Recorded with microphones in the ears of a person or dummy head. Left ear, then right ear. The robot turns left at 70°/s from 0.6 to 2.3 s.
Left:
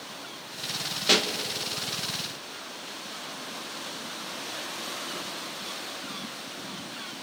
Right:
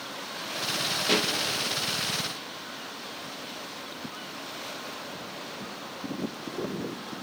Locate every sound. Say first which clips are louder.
1.1 s a pop: left 4 dB; 15° left (ahead or behind), 1.4 m; by 1.3 s centre (ahead or behind), 1.4 m